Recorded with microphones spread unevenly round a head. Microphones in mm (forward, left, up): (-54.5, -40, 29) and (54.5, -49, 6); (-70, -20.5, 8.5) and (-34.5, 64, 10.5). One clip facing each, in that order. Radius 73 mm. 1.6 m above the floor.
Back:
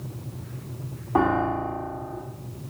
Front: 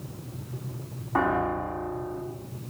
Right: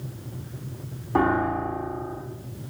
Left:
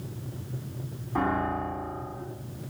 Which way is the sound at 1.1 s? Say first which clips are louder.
Back 3 dB, right 5 dB; 125° right.